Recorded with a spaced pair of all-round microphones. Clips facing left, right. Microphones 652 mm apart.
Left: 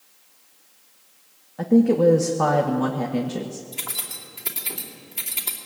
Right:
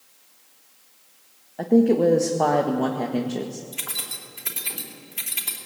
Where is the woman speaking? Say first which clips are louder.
Left 1 dB; 35° left (ahead or behind), 1.4 m.